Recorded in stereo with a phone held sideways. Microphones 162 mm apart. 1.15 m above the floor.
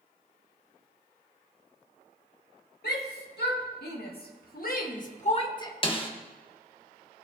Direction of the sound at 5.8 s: 35° left (ahead or behind).